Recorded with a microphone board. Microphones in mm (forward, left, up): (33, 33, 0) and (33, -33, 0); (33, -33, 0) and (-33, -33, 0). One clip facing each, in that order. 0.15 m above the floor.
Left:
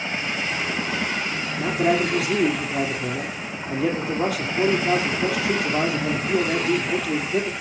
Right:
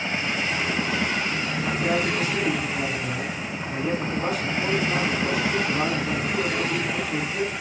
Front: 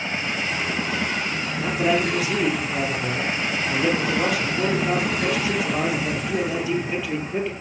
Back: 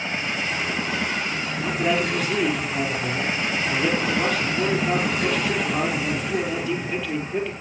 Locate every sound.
1.6 s a man speaking: 80° left, 4.5 m